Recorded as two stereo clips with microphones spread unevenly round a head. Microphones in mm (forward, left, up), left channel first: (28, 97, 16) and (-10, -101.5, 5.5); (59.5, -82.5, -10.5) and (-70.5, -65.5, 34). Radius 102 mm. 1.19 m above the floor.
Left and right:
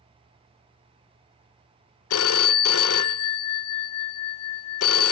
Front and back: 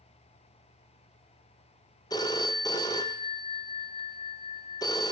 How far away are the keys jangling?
No keys jangling in this recording.